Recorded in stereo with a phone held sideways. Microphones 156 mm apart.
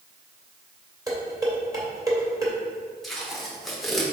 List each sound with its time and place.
1.1 s dishes clattering: 20° right (ahead or behind), 2 m
3.0 s tape being pulled: centre (ahead or behind), 1.4 m